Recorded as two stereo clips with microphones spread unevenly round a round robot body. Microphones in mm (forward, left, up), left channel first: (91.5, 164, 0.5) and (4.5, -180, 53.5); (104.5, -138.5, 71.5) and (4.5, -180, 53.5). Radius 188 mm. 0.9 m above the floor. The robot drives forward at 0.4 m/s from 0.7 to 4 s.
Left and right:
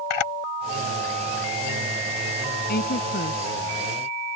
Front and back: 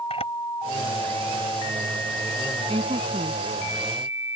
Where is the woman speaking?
145° left.